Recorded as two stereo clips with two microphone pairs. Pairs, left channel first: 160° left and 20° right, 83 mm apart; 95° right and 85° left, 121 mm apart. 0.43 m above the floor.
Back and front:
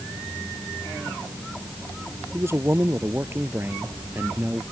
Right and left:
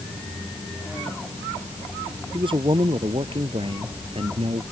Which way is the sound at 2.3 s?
40° left.